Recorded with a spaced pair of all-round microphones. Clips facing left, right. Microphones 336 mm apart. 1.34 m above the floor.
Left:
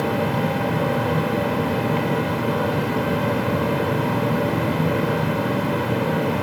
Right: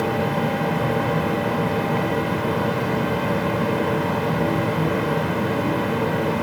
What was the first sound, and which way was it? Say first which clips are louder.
A machine running: even; 45° left (ahead or behind).